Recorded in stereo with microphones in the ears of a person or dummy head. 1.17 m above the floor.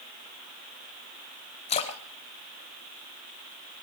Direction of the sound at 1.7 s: 40° left (ahead or behind).